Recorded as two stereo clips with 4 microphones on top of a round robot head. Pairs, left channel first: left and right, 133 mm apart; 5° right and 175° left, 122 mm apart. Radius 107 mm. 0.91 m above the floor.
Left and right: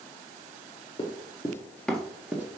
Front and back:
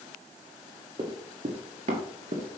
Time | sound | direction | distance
1.0 | running footsteps | 135° left | 1.2 m